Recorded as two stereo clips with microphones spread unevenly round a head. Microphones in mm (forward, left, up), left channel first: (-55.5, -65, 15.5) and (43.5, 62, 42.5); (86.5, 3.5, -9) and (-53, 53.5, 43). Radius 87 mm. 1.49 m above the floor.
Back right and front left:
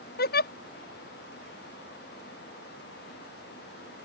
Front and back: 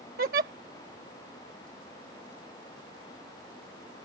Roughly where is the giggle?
Behind right.